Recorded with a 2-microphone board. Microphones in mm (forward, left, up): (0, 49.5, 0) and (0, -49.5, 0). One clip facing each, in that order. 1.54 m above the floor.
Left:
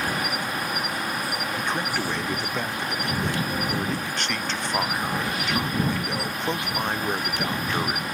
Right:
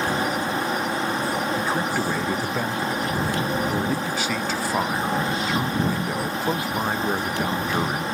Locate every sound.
0.0 s an insect: 30° right (ahead or behind)
1.6 s a man speaking: 5° right (ahead or behind)